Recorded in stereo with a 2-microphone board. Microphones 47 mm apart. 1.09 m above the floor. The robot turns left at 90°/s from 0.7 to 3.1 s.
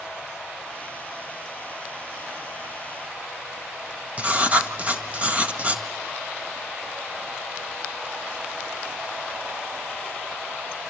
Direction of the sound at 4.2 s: 35° right (ahead or behind).